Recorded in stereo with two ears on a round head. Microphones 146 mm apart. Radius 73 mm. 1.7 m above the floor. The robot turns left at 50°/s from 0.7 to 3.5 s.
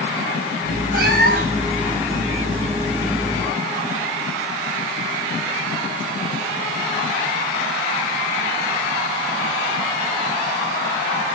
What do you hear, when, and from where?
0.9 s a cat meowing: 90° right, 1.7 m; by 1.7 s 130° right, 1.7 m